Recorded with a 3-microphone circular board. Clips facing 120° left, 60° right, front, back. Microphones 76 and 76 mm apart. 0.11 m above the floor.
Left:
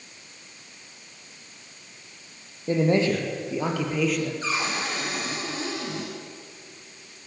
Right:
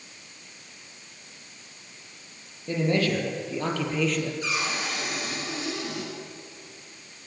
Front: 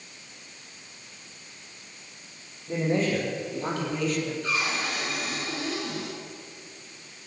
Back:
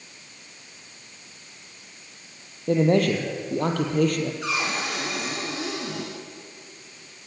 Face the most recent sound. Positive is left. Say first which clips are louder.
# left 2 dB, back 1 dB
turn(degrees=175)